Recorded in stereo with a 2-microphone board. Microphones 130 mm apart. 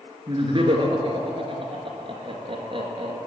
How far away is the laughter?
About 2 m.